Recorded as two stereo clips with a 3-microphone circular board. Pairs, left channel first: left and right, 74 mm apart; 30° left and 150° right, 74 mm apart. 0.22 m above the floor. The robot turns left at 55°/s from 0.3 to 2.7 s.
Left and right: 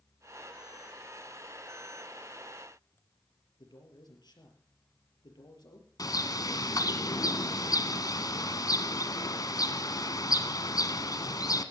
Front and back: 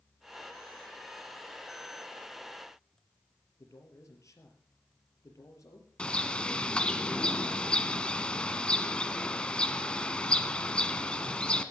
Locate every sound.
3.6 s a man speaking: 75° left, 4.5 m
6.0 s a bird: 105° left, 1.2 m